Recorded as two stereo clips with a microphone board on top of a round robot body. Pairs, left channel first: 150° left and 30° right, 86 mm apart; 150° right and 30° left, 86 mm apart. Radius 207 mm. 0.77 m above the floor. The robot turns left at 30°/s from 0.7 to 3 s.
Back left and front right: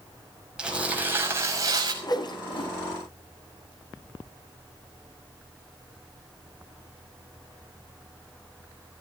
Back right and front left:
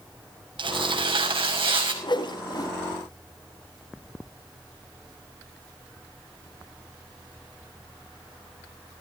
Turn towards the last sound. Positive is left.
turn(degrees=160)